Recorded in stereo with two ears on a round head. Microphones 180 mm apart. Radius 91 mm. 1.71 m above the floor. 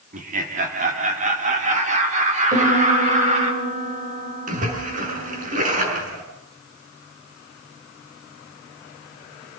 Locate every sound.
0.1 s laughter: 45° right (ahead or behind), 4 m; by 3.5 s 35° right (ahead or behind), 6 m
2.5 s a piano: 40° right (ahead or behind), 6.5 m
4.5 s a splash: 40° right (ahead or behind), 6.5 m